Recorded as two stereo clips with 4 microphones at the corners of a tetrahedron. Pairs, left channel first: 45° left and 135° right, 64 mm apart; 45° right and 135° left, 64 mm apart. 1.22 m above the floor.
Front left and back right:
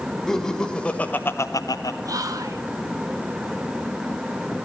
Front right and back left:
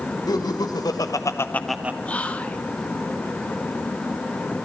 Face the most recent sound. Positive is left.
turn(degrees=-115)